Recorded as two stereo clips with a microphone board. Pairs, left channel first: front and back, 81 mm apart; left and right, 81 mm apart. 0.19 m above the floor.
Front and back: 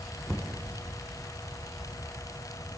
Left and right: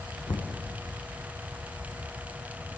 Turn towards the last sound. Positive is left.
turn(degrees=90)